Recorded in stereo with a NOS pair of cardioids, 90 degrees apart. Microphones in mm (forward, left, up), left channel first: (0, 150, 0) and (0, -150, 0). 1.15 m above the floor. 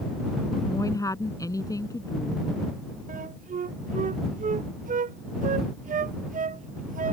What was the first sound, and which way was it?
A woman speaking, 10° left.